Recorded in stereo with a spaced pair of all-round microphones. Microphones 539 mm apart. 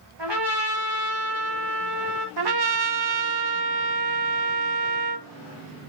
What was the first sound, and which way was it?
A trumpet, 50° right (ahead or behind).